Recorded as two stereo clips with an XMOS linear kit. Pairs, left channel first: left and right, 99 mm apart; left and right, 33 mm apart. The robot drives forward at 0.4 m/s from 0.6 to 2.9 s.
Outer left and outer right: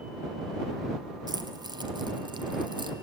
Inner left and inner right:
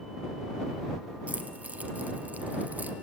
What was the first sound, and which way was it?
Keys jangling, 40° right (ahead or behind).